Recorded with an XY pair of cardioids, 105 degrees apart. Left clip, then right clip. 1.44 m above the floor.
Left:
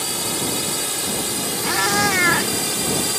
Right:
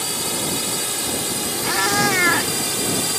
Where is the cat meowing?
Straight ahead.